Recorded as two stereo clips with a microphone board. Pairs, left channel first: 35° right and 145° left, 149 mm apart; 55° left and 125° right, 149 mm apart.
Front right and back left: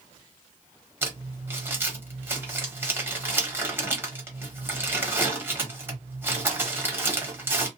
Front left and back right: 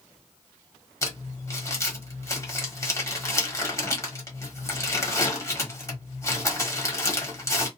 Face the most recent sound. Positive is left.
turn(degrees=90)